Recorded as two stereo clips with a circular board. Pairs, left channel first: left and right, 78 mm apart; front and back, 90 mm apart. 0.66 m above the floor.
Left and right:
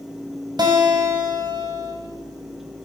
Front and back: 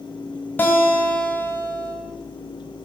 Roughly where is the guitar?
Right.